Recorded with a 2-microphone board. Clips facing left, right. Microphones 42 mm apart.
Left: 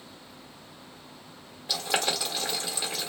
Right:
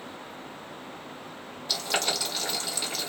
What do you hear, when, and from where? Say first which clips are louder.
1.7 s boiling: left 1 dB; 20° left (ahead or behind), 1.4 m